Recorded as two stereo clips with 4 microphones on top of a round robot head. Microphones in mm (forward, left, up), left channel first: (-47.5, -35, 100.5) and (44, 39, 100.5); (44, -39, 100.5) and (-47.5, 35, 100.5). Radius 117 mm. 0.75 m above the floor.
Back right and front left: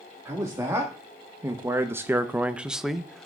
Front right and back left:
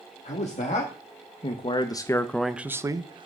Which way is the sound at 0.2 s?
30° right.